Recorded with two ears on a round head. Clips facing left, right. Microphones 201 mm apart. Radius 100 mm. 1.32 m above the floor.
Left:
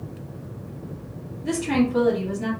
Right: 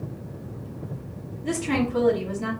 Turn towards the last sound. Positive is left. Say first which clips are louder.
# left 3 dB
turn(degrees=5)  # may be behind; listen again after turning